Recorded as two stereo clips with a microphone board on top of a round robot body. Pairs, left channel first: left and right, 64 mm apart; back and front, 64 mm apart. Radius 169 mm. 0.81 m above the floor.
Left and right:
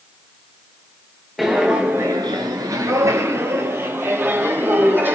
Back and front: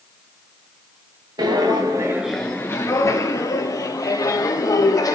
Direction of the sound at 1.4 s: Straight ahead.